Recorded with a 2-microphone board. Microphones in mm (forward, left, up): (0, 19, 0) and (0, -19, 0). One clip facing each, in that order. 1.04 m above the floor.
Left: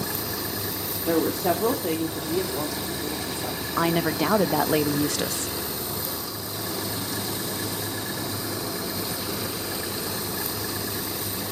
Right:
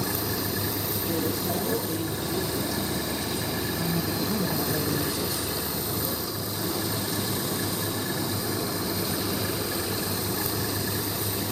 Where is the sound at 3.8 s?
85° left, 0.9 m.